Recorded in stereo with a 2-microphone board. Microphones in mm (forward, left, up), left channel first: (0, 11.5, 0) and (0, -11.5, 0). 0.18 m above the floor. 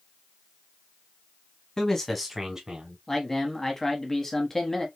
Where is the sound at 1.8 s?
25° left (ahead or behind), 1.3 m; by 3.0 s 40° right (ahead or behind), 1.5 m.